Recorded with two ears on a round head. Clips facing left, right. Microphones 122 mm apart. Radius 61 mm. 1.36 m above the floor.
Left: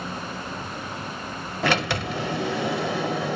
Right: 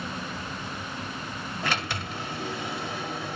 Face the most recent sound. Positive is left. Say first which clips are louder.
# left 8 dB
turn(degrees=55)  # may be behind; listen again after turning